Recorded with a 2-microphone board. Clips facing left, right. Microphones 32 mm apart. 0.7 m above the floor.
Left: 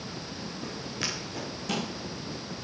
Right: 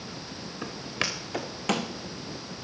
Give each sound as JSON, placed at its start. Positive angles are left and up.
{"t": 0.6, "sound": "footsteps", "side_deg": -65, "distance_m": 3.0}